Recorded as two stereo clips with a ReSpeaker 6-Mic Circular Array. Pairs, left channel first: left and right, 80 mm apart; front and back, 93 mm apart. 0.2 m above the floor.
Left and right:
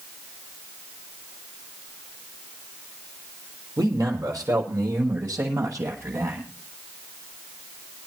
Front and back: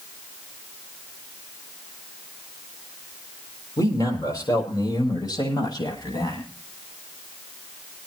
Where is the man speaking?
50° right, 5.5 m; by 6.4 s 40° right, 8 m.